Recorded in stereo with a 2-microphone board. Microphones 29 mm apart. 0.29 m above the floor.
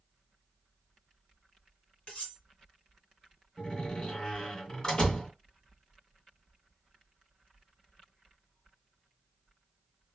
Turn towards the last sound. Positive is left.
turn(degrees=25)  # may be behind; listen again after turning